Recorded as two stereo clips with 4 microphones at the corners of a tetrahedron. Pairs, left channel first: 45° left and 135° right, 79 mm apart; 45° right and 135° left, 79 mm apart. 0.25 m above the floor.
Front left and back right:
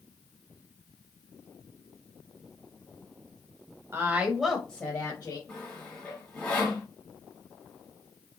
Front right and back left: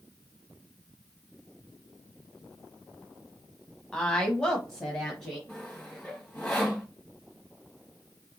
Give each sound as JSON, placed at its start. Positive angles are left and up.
{"t": 3.9, "sound": "a woman speaking", "azimuth_deg": -115, "distance_m": 1.1}
{"t": 5.5, "sound": "sawing", "azimuth_deg": -5, "distance_m": 1.5}